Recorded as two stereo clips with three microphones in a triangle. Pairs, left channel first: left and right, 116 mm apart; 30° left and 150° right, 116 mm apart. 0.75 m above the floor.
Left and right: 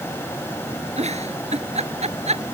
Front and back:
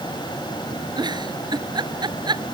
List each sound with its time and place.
1.0 s a giggle: 100° right